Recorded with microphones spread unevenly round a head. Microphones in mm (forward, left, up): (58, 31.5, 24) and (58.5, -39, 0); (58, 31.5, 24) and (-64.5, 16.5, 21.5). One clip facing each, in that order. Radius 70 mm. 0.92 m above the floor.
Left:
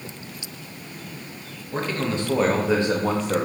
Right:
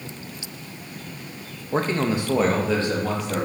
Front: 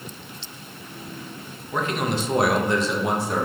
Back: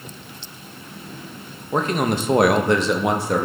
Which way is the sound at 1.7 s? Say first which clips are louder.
Right 3 dB, back 4 dB; 120° right.